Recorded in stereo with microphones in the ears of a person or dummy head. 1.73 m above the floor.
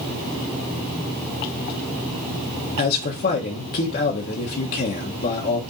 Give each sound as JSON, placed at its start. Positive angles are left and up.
{"t": 2.8, "sound": "a man speaking", "side_deg": 50, "distance_m": 1.5}